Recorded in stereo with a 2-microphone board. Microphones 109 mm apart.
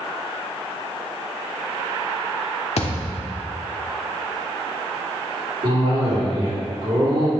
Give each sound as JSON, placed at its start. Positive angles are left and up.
{"t": 2.8, "sound": "a thud", "side_deg": 70, "distance_m": 1.2}
{"t": 5.6, "sound": "a cough", "side_deg": -60, "distance_m": 3.0}